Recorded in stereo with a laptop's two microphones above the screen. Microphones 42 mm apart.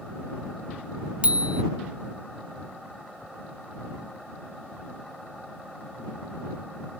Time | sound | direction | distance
1.2 | a bicycle bell | 30° right (ahead or behind) | ?